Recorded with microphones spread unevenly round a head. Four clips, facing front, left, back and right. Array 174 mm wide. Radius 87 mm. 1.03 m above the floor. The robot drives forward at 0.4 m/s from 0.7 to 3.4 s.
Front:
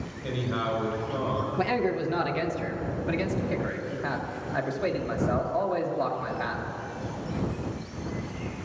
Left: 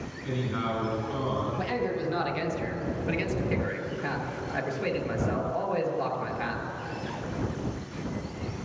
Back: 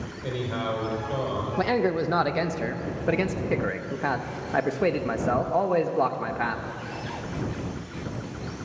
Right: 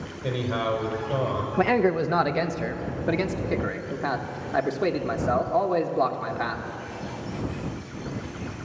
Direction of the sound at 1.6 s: 110° right.